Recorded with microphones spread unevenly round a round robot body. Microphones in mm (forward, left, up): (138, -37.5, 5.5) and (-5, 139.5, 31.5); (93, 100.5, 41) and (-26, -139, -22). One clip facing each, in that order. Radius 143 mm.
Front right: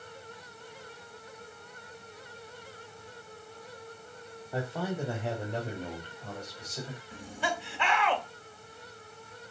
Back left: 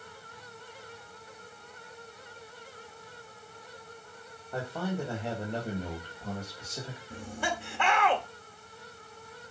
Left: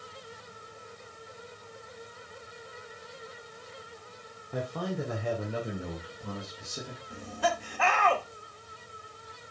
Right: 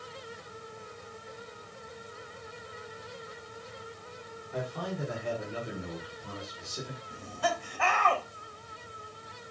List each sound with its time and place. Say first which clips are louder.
4.5 s a man speaking: even, left 3 dB; 25° left, 2.0 m; by 7.0 s 45° left, 3 m
7.1 s laughter: back left 1 dB, left 2 dB; 90° left, 2.0 m